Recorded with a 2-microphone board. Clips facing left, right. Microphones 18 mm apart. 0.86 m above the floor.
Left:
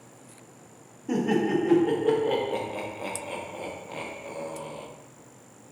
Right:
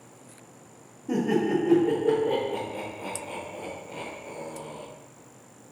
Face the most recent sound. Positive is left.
turn(degrees=50)  # may be behind; listen again after turning